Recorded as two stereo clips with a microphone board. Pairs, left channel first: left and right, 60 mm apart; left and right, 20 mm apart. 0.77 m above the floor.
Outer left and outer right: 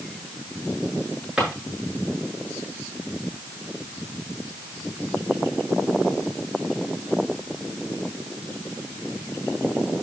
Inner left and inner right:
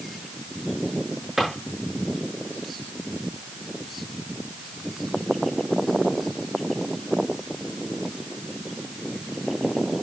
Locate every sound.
1.4 s a drawer: 15° right (ahead or behind), 8 m